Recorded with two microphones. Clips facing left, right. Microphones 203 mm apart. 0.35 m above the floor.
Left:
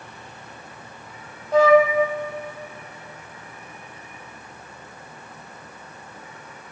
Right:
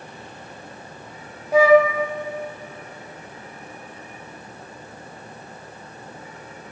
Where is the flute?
10° right (ahead or behind), 0.5 m.